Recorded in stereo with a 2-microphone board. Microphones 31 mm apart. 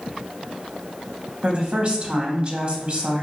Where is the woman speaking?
40° right (ahead or behind), 1.3 m.